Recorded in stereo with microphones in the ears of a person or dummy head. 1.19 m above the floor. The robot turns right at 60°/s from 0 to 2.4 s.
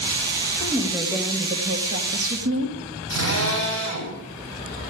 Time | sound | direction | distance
0.6 | a woman speaking | 150° left | 1.9 m
3.1 | a drill | 80° right | 8 m